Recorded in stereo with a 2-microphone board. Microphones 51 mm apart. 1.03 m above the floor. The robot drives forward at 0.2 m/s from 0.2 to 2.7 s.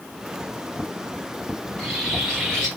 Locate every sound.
1.6 s a bird: 10° left (ahead or behind), 4 m